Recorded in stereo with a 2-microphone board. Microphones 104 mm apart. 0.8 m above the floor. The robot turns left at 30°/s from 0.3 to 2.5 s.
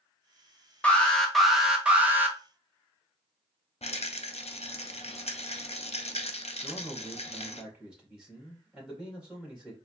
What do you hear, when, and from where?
0.8 s an alarm: 15° left, 0.8 m; by 2.4 s 30° right, 0.8 m
3.8 s a rattle: 80° left, 0.5 m
6.6 s a man speaking: 5° right (ahead or behind), 2 m